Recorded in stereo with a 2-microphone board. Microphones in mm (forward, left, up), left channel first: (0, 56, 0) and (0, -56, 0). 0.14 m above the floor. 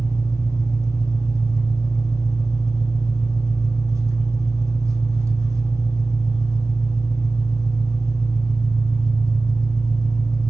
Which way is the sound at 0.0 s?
25° right (ahead or behind).